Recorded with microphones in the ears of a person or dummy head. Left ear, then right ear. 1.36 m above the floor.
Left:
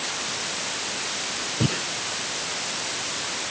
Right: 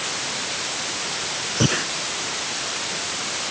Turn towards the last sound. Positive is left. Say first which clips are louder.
# right 7 dB
turn(degrees=-45)  # may be behind; listen again after turning